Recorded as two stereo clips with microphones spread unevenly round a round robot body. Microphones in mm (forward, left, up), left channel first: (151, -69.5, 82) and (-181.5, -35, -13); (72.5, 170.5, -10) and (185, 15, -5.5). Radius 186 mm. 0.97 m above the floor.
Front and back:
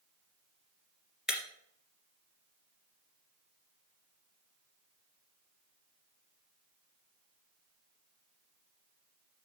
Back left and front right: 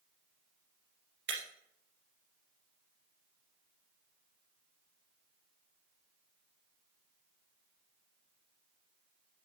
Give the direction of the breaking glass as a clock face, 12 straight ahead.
3 o'clock.